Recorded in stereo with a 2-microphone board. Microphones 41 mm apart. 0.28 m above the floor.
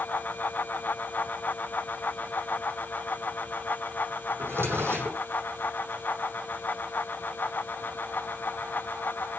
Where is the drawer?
85° right, 6.5 m.